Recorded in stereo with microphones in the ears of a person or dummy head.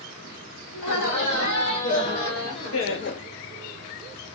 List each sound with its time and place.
0.7 s laughter: 75° left (ahead or behind), 1.6 m; by 3.2 s 40° left (ahead or behind), 0.5 m